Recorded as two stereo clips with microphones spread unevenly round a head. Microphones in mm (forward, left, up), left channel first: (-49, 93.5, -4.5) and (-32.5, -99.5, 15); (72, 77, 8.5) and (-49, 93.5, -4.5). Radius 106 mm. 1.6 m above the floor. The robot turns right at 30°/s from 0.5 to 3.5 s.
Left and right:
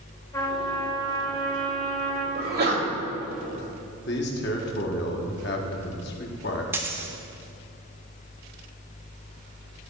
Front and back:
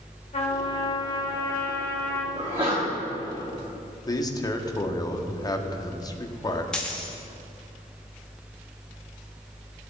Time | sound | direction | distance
0.3 | a trumpet | 20° left | 1.7 m
2.4 | a sneeze | 130° right | 3 m
4.1 | a man speaking | 50° left | 1.2 m
6.7 | a dropped coin | 55° right | 1.0 m